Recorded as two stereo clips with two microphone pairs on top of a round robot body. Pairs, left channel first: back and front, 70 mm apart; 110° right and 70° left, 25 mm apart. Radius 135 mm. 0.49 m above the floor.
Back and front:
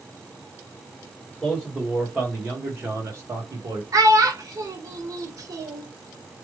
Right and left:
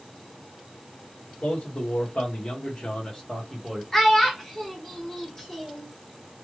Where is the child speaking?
40° right, 1.2 m.